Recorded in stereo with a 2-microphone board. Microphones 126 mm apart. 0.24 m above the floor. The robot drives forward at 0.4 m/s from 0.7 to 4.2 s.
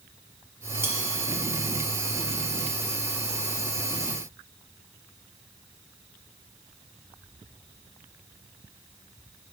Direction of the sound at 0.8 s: 20° right (ahead or behind).